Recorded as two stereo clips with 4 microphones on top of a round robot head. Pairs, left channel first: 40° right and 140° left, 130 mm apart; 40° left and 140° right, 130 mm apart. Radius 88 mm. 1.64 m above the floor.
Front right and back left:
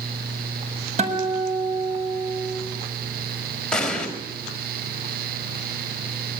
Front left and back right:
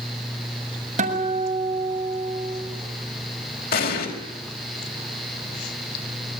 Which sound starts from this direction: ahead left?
An explosion, at 3.7 s.